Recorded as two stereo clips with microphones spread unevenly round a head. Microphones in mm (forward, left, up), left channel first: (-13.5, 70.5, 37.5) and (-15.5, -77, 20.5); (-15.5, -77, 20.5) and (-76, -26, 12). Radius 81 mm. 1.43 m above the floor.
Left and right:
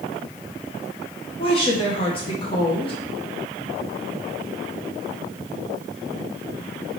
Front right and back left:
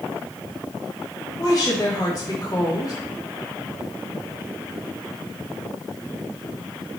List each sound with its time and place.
1.4 s a woman speaking: 30° left, 1.4 m